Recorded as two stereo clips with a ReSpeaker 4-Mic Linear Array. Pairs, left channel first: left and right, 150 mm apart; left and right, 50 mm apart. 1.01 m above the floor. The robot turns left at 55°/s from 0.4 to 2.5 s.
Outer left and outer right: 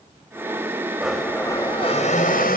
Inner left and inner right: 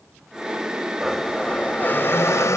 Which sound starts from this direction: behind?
A blender, at 1.0 s.